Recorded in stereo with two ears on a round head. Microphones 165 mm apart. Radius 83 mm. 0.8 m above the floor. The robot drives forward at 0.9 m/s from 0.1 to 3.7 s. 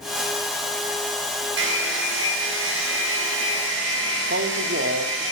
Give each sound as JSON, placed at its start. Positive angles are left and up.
{"t": 1.6, "sound": "a hair dryer", "side_deg": -70, "distance_m": 5.5}
{"t": 4.3, "sound": "a man speaking", "side_deg": -65, "distance_m": 2.0}